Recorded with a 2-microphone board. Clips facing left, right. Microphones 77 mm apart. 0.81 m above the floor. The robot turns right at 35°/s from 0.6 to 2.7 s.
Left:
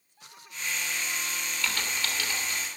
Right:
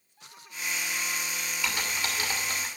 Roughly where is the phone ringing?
I don't hear a phone ringing.